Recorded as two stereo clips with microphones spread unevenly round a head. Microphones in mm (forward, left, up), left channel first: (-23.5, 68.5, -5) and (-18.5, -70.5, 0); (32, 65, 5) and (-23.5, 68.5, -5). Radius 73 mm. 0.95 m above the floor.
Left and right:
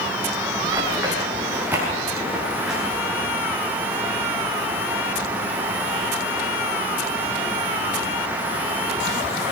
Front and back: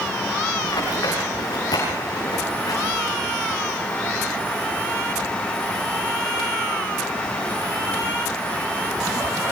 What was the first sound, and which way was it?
Running footsteps, 15° right.